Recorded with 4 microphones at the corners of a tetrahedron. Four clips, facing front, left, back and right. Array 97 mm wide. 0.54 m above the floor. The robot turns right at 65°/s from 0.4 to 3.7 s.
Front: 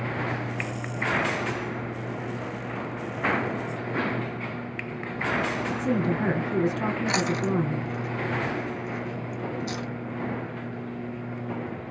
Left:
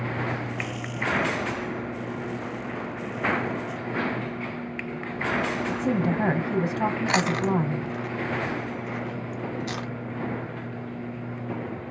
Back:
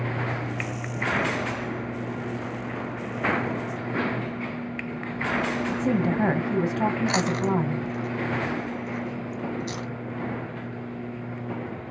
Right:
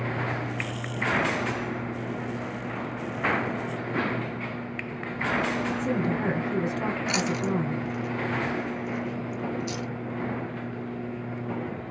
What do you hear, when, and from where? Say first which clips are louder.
5.7 s a woman speaking: left 2 dB, back 2 dB; 140° left, 2.5 m
7.1 s chewing: left 3 dB, back 1 dB; 85° left, 1.2 m